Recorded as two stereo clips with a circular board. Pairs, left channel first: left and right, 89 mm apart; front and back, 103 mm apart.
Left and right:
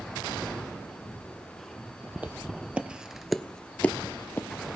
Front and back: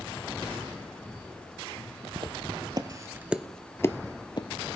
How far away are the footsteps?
About 1.0 m.